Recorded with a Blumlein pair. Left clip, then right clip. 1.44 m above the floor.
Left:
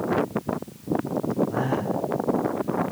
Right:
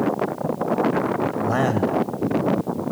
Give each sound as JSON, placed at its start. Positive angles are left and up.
{"t": 1.4, "sound": "a man speaking", "azimuth_deg": -45, "distance_m": 2.5}